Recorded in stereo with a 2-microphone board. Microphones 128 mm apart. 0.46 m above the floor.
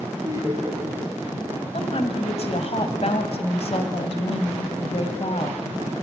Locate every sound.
0.2 s laughter: 30° right (ahead or behind), 5 m
1.7 s a woman speaking: 55° left (ahead or behind), 2 m